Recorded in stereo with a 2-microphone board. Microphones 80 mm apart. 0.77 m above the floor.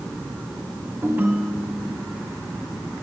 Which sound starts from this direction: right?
A ringtone, at 1.0 s.